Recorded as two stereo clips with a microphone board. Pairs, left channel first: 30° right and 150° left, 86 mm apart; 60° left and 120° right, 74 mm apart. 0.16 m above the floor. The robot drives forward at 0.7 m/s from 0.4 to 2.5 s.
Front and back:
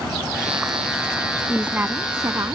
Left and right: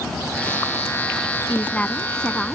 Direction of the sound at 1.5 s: 90° left.